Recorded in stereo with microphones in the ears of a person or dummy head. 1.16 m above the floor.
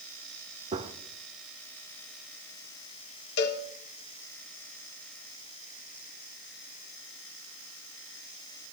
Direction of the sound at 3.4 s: 65° left (ahead or behind).